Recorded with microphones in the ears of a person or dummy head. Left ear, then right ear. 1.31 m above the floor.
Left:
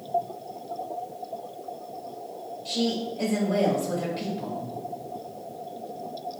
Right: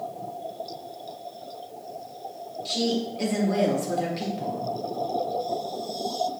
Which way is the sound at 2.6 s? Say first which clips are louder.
Right 1 dB; 20° right (ahead or behind).